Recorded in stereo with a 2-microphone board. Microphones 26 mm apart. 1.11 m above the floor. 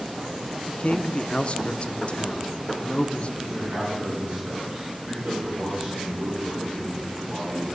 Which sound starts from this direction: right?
A man speaking, at 3.4 s.